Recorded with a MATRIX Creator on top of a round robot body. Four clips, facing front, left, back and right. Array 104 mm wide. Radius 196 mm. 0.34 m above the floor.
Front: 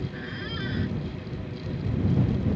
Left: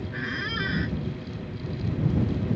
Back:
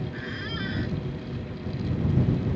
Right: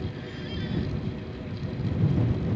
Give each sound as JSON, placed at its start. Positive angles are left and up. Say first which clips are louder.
{"t": 0.1, "sound": "a squeak", "louder": "left 4 dB, back 1 dB", "azimuth_deg": 95}